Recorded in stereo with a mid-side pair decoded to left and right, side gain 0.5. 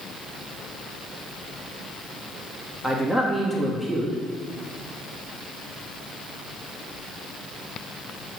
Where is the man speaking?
5° left, 2.5 m.